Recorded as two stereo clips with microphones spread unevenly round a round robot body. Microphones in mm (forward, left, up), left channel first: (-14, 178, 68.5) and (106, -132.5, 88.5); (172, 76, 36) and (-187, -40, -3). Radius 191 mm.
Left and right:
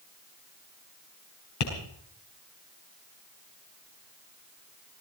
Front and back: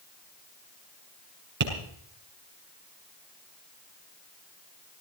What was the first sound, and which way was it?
Tapping, 135° left.